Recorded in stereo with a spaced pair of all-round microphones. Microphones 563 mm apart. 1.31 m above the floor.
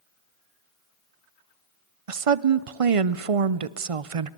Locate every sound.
2.1 s a woman speaking: 70° right (ahead or behind), 0.7 m